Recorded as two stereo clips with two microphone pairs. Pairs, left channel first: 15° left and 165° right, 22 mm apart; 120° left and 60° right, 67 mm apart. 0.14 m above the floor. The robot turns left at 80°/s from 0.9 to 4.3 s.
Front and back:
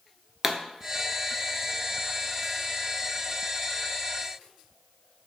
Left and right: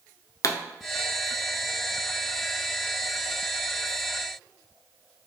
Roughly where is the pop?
Behind left.